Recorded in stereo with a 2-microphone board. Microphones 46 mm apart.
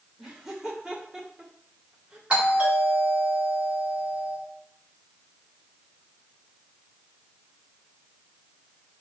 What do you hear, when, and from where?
0.2 s laughter: 10° right (ahead or behind), 3 m; by 2.2 s 20° right (ahead or behind), 2 m
2.3 s a doorbell: 25° right (ahead or behind), 3.5 m